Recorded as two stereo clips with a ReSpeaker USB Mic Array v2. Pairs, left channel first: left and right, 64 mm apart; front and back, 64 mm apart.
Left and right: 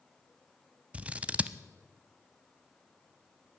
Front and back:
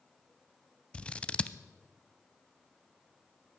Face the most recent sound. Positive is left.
turn(degrees=-45)